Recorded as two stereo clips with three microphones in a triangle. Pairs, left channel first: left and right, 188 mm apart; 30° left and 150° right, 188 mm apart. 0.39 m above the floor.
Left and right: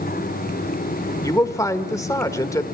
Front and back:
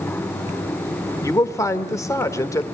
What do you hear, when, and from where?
1.2 s a man speaking: 60° left, 1.1 m